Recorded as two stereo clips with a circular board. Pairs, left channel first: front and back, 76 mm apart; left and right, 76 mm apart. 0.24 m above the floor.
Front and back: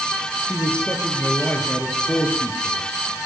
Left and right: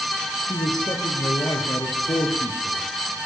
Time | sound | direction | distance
0.5 | a man speaking | 70° left | 5.5 m